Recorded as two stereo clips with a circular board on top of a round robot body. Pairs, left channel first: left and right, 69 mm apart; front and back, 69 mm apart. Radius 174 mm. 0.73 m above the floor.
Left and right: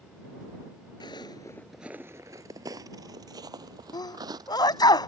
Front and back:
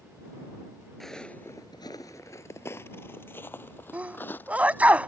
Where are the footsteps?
85° left; by 4.9 s 65° right.